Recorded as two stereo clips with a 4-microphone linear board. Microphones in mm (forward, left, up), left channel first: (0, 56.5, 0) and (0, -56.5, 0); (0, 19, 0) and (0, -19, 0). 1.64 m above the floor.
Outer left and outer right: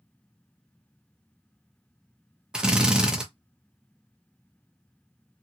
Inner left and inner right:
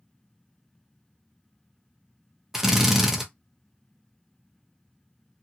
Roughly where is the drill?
Centre.